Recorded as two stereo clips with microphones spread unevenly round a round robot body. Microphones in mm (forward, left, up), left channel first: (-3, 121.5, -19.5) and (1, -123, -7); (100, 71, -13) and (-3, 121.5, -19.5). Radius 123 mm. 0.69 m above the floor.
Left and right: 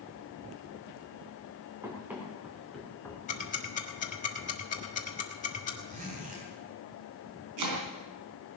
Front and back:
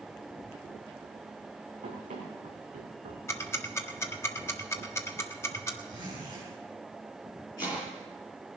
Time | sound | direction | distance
1.8 | running footsteps | 170° right | 4 m
3.3 | ticking | 40° left | 1.5 m
5.9 | a zipper | 150° right | 4.5 m
7.6 | chopping | 100° right | 3.5 m